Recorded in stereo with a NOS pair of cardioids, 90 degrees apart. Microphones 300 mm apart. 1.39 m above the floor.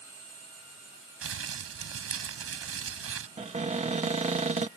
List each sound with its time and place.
1.2 s crumpling: 50° right
3.4 s a cupboard door: 25° right